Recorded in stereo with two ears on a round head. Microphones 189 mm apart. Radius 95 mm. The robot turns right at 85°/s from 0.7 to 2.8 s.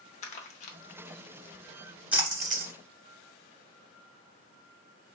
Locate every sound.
0.2 s crumpling: 35° left (ahead or behind), 0.6 m
2.1 s a splash: 5° right (ahead or behind), 0.7 m; by 2.7 s 55° right (ahead or behind), 0.7 m